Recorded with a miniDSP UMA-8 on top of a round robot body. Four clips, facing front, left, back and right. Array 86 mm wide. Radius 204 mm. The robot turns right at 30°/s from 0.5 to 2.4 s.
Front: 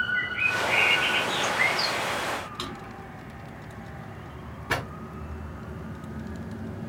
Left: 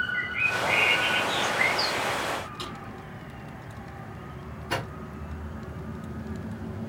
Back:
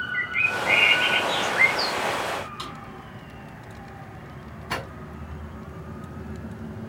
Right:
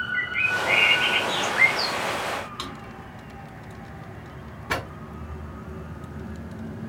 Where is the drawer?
55° right, 2.5 m.